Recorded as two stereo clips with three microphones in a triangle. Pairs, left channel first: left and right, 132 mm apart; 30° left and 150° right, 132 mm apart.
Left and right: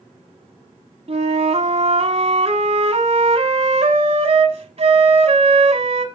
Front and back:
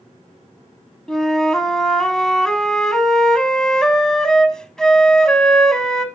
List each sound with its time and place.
1.1 s a flute: 55° right, 0.9 m